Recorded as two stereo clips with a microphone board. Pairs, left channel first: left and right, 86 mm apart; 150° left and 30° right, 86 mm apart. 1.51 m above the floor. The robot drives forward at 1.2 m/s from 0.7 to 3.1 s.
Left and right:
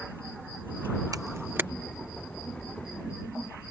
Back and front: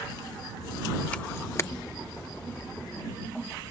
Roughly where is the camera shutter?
Behind right.